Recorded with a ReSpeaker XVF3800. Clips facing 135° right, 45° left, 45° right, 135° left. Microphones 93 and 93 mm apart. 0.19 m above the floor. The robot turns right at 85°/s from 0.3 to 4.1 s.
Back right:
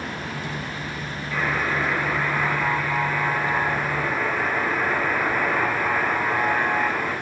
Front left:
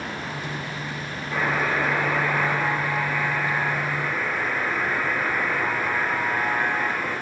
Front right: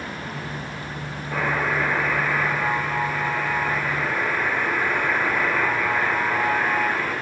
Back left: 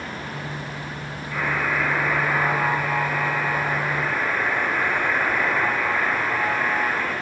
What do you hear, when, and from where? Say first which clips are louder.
1.3 s a buzzer: front left 1 dB, front right 1 dB; 10° right, 3.5 m; by 7.1 s 135° right, 3.5 m